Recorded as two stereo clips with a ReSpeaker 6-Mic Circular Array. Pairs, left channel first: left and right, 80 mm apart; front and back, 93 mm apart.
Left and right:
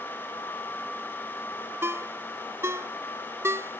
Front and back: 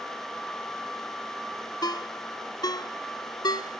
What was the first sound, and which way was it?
A ringtone, 35° right.